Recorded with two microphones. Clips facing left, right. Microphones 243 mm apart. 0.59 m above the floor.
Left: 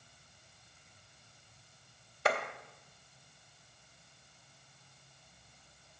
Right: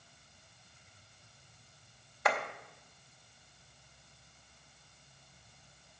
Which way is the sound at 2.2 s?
25° left (ahead or behind).